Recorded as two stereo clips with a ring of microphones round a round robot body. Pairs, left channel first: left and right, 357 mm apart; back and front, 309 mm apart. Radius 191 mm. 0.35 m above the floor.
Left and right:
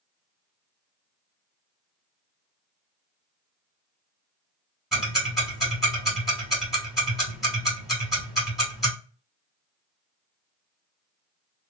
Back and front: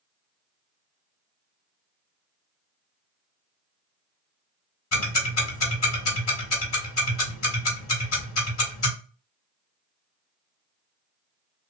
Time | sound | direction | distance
4.9 | ticking | straight behind | 1.9 m